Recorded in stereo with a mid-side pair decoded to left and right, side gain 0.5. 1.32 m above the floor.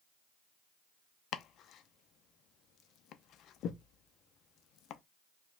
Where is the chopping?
65° left, 0.5 m.